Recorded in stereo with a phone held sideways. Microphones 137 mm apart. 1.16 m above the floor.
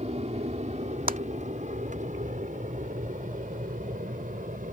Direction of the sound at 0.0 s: 50° right (ahead or behind).